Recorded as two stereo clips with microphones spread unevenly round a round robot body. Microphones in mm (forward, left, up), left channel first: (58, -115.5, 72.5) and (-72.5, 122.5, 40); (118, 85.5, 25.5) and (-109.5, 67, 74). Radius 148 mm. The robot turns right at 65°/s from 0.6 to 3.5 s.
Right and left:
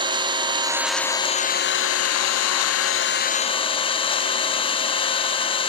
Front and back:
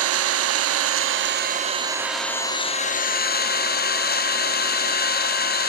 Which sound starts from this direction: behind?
An engine running, at 0.0 s.